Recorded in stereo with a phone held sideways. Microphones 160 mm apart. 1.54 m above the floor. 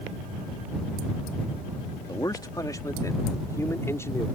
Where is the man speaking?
25° left (ahead or behind); by 4.3 s 15° left (ahead or behind).